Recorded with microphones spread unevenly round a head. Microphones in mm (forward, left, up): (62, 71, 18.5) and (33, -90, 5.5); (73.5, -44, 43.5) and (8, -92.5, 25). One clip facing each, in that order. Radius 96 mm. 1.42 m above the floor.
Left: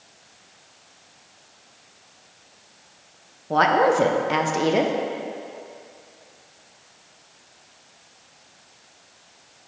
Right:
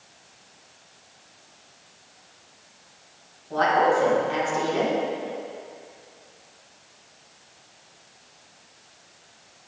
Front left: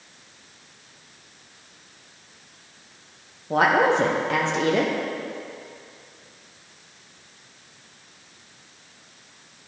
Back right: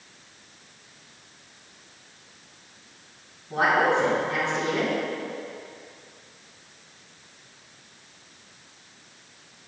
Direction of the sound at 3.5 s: 60° left.